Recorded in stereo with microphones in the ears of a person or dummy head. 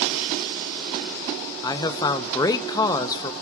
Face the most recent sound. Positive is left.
turn(degrees=15)  # may be behind; listen again after turning